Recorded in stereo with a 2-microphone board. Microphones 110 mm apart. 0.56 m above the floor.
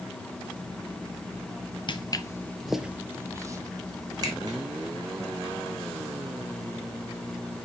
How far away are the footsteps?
About 0.7 m.